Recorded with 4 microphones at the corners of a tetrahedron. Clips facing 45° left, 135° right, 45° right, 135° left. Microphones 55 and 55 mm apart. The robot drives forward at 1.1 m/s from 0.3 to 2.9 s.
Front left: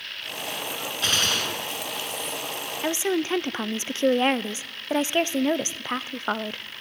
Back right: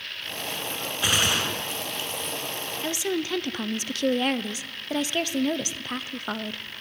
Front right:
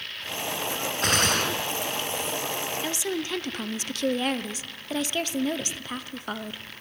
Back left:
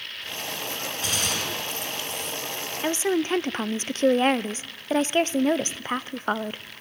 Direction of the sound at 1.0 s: 60° right.